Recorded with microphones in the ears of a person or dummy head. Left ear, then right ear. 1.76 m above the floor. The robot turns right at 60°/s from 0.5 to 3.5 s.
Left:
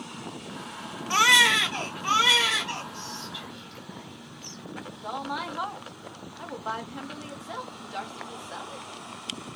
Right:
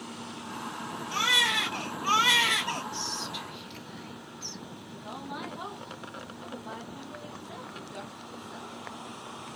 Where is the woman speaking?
50° left (ahead or behind), 1.1 m.